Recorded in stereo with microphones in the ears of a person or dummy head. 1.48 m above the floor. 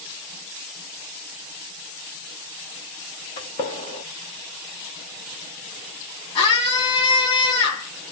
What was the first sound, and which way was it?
A gunshot, 25° left (ahead or behind).